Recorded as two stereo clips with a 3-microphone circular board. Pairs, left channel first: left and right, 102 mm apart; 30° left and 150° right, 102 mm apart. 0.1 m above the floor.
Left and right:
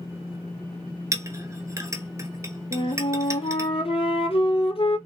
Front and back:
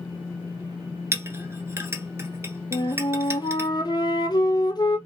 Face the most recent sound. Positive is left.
turn(degrees=75)